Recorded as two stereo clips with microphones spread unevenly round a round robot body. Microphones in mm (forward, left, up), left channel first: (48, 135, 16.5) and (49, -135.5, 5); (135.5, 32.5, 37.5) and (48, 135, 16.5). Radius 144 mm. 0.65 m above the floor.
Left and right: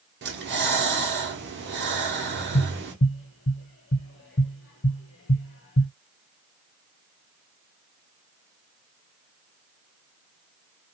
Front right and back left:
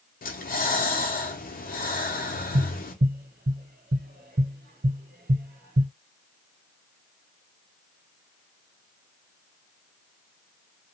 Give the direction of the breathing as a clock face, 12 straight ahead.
1 o'clock.